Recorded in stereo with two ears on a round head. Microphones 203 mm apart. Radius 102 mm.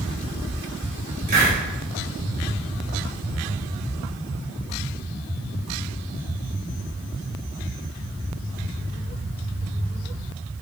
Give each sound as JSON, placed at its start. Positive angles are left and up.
{"t": 1.3, "sound": "a hiss", "side_deg": -40, "distance_m": 3.0}